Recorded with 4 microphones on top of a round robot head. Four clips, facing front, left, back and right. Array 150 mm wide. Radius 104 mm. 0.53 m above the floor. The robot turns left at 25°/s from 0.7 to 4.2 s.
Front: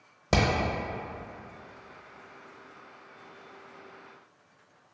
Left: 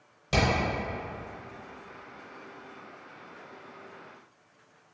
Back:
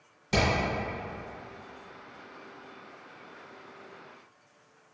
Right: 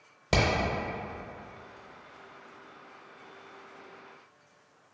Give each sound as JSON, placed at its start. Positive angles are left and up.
{"t": 0.3, "sound": "hammering", "azimuth_deg": -25, "distance_m": 0.6}